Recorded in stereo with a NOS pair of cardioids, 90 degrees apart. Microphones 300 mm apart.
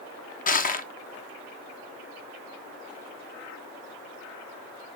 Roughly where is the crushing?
Ahead left.